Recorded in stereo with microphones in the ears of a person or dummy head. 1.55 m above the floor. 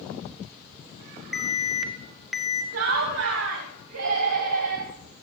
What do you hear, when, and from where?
1.3 s an alarm: 5° right (ahead or behind), 1.0 m
2.7 s laughter: 70° right (ahead or behind), 1.1 m